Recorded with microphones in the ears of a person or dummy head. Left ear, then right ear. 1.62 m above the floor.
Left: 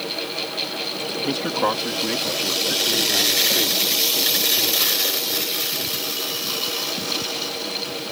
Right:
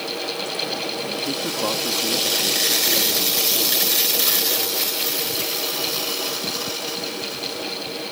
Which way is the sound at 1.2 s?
45° left (ahead or behind).